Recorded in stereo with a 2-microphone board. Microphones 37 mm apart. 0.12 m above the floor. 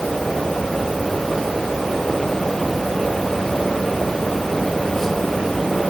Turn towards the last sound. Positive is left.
No sound to turn to.